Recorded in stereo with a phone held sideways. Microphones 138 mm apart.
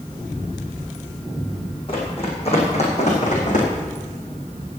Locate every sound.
1.9 s running footsteps: 40° left (ahead or behind), 5.5 m; by 3.7 s 65° left (ahead or behind), 5 m